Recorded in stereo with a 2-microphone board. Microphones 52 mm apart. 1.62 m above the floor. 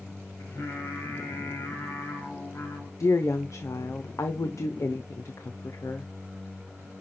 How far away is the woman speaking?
About 0.8 m.